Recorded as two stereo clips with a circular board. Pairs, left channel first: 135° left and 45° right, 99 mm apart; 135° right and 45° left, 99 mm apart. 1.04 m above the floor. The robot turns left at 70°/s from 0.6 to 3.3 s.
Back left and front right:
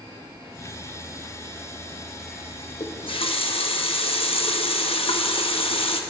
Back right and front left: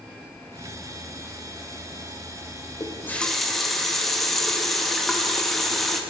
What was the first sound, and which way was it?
A running tap, 170° left.